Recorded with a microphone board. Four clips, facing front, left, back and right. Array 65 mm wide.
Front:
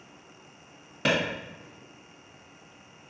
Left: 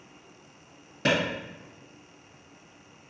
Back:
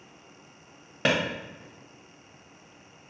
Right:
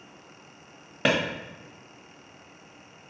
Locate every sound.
1.1 s a clap: 125° right, 1.1 m